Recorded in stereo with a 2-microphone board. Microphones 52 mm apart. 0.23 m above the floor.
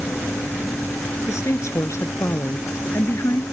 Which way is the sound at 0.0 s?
50° left (ahead or behind).